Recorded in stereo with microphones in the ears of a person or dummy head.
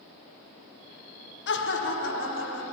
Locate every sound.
1.5 s laughter: 55° left (ahead or behind), 0.8 m; by 2.6 s 70° left (ahead or behind), 1.7 m